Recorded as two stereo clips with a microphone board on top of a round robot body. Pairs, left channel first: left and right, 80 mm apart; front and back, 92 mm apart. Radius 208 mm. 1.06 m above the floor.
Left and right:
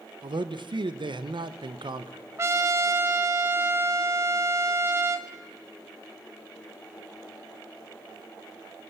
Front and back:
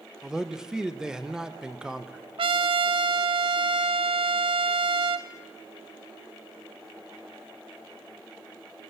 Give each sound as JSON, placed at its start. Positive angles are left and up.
{"t": 0.2, "sound": "a man speaking", "azimuth_deg": -95, "distance_m": 1.8}
{"t": 2.4, "sound": "a trumpet", "azimuth_deg": -150, "distance_m": 0.7}